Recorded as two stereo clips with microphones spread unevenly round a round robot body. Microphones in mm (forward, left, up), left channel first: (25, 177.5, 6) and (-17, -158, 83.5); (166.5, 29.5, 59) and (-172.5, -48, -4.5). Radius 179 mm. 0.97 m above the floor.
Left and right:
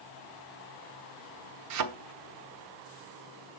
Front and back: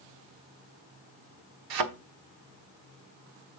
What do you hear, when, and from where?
1.7 s a thud: 130° right, 1.0 m